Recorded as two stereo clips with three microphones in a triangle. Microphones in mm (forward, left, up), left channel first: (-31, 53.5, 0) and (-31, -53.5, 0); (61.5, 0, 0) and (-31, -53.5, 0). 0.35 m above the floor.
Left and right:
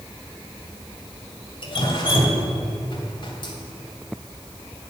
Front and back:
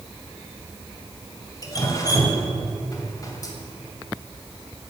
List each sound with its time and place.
1.6 s dripping: 70° left, 2.5 m